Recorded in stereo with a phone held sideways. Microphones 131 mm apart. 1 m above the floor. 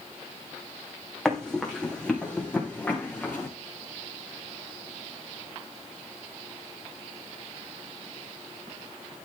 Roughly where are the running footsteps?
Centre.